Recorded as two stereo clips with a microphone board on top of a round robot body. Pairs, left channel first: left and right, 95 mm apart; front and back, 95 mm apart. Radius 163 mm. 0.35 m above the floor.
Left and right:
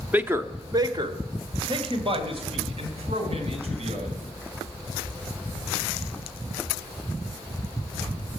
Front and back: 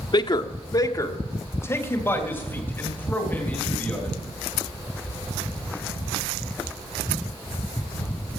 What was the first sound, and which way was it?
A man speaking, 20° right.